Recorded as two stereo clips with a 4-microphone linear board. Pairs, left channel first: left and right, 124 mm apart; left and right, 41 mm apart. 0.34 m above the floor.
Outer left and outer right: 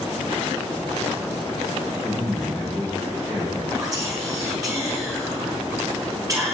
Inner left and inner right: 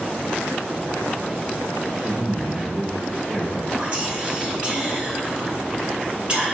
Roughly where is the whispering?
Right.